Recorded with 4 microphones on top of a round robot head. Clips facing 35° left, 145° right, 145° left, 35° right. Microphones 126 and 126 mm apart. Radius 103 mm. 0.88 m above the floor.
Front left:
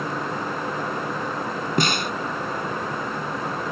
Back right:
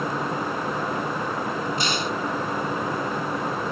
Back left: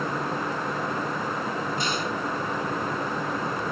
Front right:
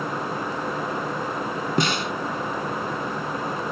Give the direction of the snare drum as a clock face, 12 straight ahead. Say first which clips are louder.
Front left 3 dB, front right 4 dB; 12 o'clock.